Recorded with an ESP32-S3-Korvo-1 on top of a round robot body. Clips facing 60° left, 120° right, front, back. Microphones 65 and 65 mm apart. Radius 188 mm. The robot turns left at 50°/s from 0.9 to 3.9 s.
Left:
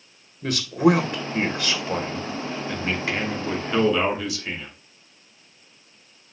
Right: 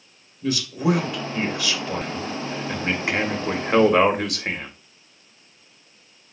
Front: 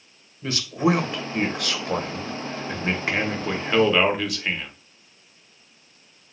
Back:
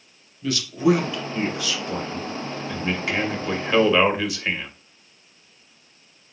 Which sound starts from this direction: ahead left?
A man speaking, at 0.4 s.